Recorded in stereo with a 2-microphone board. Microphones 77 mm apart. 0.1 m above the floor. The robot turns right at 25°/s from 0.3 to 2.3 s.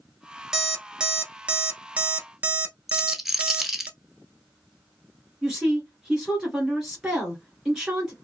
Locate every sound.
0.5 s an alarm clock: 5° right (ahead or behind), 0.6 m; by 3.9 s 25° right (ahead or behind), 0.6 m
2.9 s a rattle: 5° right (ahead or behind), 0.6 m
5.4 s a woman speaking: 10° right (ahead or behind), 1.7 m